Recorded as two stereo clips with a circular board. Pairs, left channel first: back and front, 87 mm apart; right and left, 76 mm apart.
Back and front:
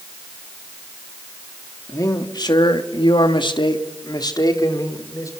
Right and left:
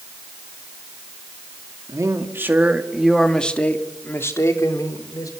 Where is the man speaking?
135° left, 2.5 m; by 5.3 s 130° right, 4.5 m.